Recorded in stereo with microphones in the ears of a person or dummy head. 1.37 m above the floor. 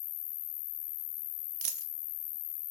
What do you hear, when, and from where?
0.0 s an insect: 85° left, 1.9 m
1.6 s a dropped coin: 45° right (ahead or behind), 1.1 m